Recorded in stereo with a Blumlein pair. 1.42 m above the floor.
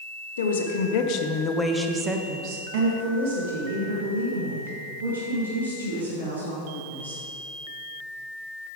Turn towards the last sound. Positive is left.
turn(degrees=-75)